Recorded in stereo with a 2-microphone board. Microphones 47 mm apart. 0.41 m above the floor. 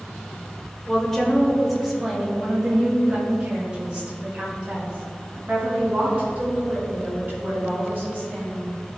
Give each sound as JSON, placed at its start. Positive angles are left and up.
{"t": 0.9, "sound": "a woman speaking", "side_deg": 15, "distance_m": 1.6}